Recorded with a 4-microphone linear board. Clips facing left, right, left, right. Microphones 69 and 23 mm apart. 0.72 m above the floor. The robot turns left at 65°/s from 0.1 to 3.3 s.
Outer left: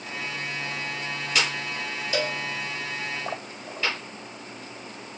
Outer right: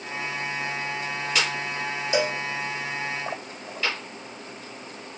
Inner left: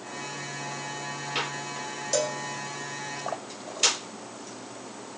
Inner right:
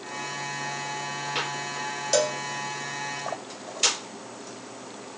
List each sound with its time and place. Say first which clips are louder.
2.1 s a cowbell: outer right 3 dB, inner right 4 dB; 20° right (ahead or behind), 0.8 m; by 2.4 s 10° right (ahead or behind), 0.8 m